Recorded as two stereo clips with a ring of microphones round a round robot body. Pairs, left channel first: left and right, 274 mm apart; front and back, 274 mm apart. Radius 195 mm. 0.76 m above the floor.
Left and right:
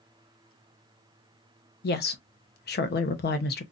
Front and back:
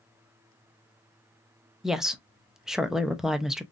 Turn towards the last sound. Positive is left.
turn(degrees=95)